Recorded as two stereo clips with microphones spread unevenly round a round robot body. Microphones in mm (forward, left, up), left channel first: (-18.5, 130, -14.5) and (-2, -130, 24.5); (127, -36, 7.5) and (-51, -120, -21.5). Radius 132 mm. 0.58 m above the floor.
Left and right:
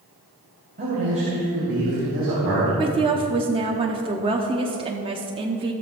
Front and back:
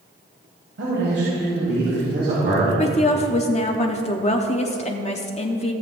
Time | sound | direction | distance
0.8 | a man speaking | 145° right | 3 m
2.8 | a woman speaking | 15° right | 0.7 m